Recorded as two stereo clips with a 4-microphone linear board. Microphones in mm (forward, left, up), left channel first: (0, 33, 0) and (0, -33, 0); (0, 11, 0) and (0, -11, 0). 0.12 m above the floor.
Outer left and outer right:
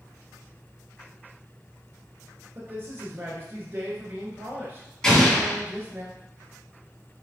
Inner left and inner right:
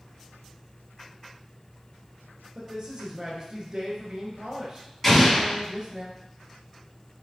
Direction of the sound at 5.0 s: 15° left (ahead or behind).